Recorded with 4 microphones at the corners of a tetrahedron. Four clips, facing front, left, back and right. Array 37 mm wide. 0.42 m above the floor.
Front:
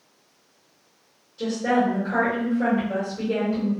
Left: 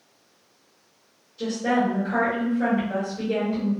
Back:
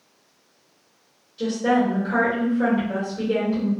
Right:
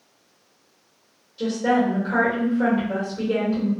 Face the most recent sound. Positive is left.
turn(degrees=-130)